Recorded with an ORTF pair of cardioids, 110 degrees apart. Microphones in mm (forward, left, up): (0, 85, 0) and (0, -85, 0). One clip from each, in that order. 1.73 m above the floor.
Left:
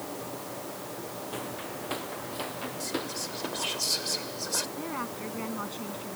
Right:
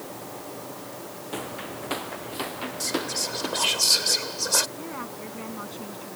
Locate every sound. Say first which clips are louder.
1.3 s footsteps: right 6 dB; 30° right
2.8 s whispering: right 8 dB; 50° right
4.8 s a woman speaking: left 1 dB; 10° left